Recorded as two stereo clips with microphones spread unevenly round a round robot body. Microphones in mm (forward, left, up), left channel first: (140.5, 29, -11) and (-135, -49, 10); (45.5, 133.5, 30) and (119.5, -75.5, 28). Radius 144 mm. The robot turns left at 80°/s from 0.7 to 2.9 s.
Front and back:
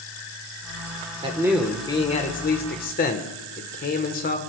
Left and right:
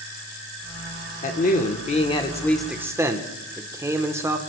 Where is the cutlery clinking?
No cutlery clinking in this recording.